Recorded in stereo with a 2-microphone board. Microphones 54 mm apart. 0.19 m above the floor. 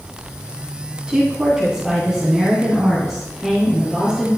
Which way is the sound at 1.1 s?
15° right (ahead or behind).